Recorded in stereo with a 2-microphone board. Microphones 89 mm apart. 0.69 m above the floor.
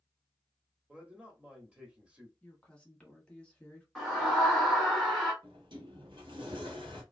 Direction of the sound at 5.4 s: 65° right (ahead or behind).